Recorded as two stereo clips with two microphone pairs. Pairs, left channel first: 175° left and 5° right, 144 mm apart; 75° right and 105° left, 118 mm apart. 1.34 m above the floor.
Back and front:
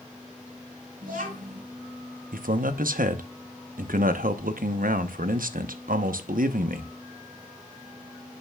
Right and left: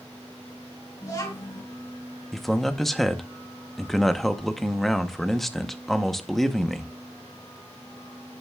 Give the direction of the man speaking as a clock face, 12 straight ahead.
12 o'clock.